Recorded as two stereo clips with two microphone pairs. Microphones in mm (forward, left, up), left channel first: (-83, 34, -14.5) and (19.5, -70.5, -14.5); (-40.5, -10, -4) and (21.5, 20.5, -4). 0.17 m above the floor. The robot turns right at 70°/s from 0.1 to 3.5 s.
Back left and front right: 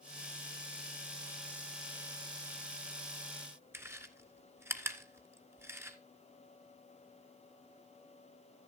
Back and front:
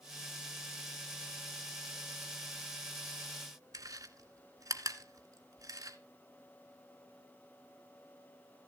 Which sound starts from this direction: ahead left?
Chewing, at 3.7 s.